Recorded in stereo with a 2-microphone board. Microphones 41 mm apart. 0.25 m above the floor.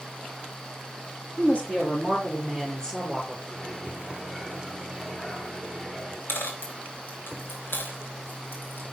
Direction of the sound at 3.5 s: 15° left (ahead or behind).